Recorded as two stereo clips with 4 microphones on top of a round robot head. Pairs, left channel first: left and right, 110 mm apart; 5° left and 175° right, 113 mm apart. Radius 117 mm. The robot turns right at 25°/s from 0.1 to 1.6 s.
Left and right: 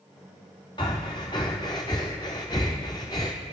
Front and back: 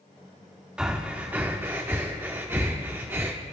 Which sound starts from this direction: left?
Breathing, at 0.8 s.